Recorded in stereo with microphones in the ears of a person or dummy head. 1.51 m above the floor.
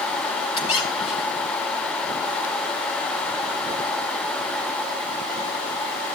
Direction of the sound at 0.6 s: 35° left (ahead or behind).